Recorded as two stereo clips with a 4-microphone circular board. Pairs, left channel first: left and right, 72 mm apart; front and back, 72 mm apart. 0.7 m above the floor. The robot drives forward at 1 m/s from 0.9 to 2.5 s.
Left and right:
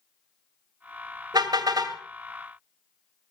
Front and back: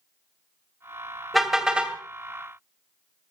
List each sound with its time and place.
1.3 s a car horn: 90° right, 2 m; by 2.0 s 110° right, 2 m